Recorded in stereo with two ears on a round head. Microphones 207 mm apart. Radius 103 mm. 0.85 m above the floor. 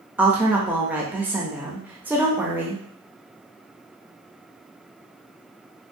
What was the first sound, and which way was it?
A woman speaking, 5° right (ahead or behind).